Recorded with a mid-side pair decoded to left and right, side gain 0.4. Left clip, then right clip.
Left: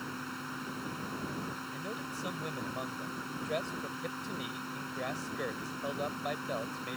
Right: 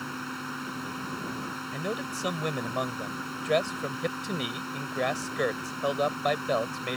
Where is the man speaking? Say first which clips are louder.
Right 7 dB; 65° right.